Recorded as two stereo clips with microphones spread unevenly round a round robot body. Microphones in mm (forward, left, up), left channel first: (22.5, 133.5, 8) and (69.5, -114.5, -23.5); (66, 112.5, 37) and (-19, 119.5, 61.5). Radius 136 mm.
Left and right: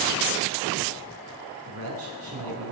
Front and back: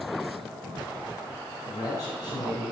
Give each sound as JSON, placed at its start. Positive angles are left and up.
{"t": 1.7, "sound": "a man speaking", "azimuth_deg": -55, "distance_m": 4.5}